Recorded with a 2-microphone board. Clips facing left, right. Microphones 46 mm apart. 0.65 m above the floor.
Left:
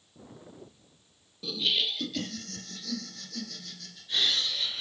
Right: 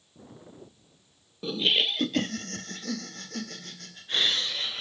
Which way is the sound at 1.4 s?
30° right (ahead or behind).